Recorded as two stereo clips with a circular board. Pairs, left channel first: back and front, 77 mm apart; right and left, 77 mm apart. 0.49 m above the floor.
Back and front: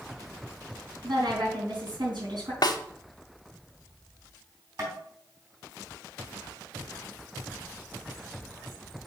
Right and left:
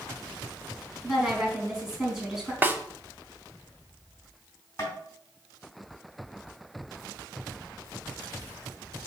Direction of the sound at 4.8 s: 40° right.